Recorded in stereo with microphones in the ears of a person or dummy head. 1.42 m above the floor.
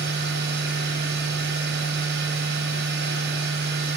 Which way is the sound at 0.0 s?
65° right (ahead or behind).